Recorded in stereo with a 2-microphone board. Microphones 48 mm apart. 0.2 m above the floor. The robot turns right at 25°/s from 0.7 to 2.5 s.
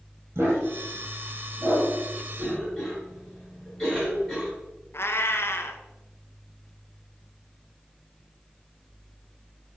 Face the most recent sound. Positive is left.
turn(degrees=55)  # may be behind; listen again after turning